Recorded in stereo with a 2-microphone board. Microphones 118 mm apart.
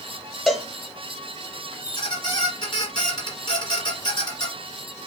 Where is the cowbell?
Centre (ahead or behind), 1.5 m.